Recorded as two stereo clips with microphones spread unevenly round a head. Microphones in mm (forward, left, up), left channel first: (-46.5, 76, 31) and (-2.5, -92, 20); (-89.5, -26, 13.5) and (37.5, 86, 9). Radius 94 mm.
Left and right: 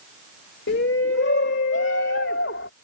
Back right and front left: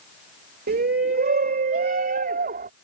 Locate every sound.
0.7 s a shout: 70° left; by 2.7 s 75° left